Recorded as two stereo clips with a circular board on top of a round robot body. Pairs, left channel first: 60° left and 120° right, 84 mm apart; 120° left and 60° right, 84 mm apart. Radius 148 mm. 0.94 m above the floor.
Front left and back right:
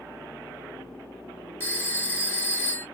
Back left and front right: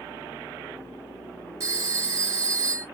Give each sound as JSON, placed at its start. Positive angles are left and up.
{"t": 1.6, "sound": "a phone ringing", "azimuth_deg": -10, "distance_m": 1.5}